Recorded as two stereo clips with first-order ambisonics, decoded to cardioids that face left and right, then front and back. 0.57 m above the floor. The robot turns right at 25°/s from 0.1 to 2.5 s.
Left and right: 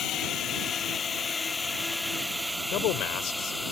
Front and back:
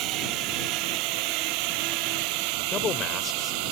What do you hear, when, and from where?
0.0 s a drone: 145° left; by 3.7 s 175° left
2.7 s a man speaking: 55° left